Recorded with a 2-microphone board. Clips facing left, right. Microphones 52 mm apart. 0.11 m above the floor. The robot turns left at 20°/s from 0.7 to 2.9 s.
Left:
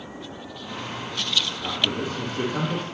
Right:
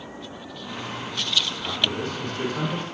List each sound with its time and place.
1.6 s a man speaking: 35° left (ahead or behind), 3.5 m; by 2.9 s 60° left (ahead or behind), 3.5 m